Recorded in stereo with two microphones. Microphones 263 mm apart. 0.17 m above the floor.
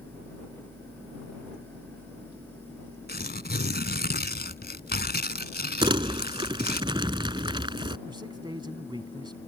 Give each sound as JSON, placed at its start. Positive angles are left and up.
{"t": 3.1, "sound": "tearing paper", "side_deg": 40}
{"t": 5.8, "sound": "crumpling", "side_deg": -20}
{"t": 8.1, "sound": "a man speaking", "side_deg": -20}